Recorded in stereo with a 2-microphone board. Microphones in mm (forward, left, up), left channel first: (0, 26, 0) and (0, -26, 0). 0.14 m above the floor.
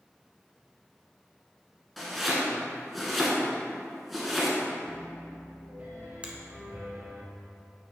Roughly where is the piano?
Right.